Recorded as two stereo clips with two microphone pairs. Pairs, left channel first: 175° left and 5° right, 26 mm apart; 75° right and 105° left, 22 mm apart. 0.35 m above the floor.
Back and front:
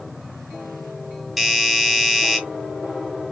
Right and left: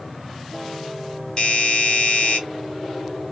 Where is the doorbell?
90° right, 2.5 m.